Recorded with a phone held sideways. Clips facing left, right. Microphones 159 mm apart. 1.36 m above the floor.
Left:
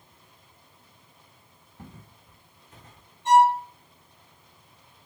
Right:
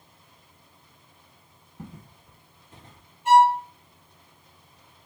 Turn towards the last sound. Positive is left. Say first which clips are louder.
# right 1 dB
turn(degrees=-5)  # may be behind; listen again after turning